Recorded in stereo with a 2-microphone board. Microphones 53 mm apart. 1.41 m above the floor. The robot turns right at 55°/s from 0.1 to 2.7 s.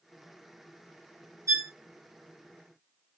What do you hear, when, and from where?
1.5 s a violin: 65° right (ahead or behind), 0.8 m; by 1.7 s 55° right (ahead or behind), 0.8 m